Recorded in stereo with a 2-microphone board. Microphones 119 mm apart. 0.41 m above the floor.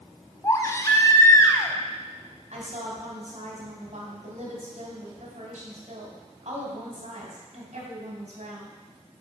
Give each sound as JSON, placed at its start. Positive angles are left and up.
{"t": 0.4, "sound": "a baby crying", "side_deg": 25, "distance_m": 1.0}
{"t": 2.5, "sound": "a woman speaking", "side_deg": -70, "distance_m": 2.0}